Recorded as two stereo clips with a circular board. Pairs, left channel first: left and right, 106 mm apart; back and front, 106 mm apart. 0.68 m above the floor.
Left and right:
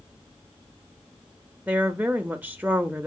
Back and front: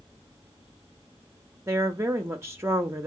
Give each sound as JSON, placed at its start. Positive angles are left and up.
{"t": 1.7, "sound": "a woman speaking", "azimuth_deg": -30, "distance_m": 0.6}